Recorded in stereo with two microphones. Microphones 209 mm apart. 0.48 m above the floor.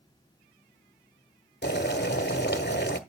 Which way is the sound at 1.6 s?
55° left (ahead or behind).